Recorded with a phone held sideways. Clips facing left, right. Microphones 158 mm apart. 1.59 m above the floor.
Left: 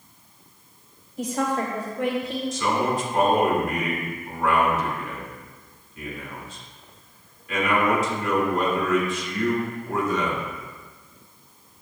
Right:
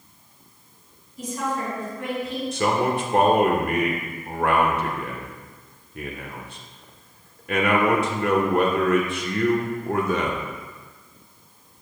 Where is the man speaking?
65° right (ahead or behind), 1.2 m.